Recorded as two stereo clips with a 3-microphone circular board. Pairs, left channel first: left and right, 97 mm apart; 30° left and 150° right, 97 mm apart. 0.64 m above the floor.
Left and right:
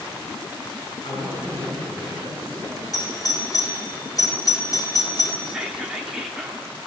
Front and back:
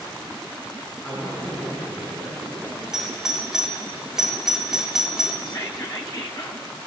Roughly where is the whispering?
Ahead.